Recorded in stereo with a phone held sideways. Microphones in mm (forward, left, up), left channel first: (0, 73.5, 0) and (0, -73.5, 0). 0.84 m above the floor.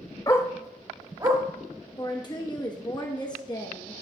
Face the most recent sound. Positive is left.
turn(degrees=30)  # may be behind; listen again after turning